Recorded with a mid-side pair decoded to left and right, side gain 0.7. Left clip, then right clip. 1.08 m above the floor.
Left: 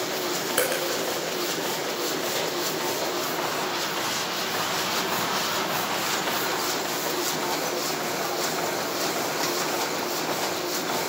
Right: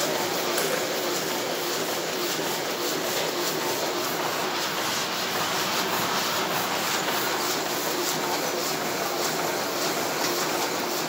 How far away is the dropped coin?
About 5.5 m.